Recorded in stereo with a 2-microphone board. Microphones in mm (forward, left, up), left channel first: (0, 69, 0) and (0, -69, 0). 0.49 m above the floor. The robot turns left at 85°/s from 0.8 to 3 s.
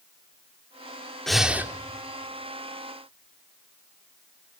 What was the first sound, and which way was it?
Breathing, 5° left.